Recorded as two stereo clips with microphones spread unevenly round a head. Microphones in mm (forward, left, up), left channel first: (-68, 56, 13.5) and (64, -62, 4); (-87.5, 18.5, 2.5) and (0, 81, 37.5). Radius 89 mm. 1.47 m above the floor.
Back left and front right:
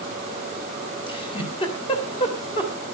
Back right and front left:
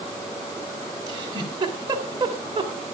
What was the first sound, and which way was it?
A giggle, 75° left.